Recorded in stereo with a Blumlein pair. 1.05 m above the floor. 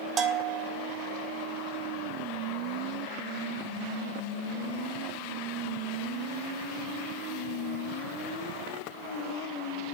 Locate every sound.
0.2 s a bell: 20° right, 0.6 m